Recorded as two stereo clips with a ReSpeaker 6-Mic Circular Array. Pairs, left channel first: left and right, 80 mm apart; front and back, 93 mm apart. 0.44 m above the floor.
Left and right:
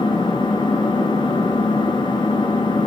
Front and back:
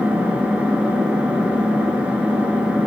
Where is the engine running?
100° left, 3.5 m.